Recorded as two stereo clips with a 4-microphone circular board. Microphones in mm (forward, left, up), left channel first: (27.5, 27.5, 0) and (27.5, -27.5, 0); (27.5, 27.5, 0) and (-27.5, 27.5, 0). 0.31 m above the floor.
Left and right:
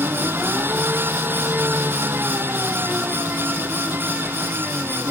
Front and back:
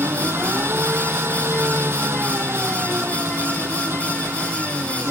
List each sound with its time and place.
0.0 s an engine running: 140° right